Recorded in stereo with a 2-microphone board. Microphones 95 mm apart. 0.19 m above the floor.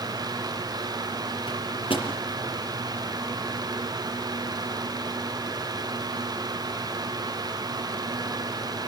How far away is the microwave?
About 5 m.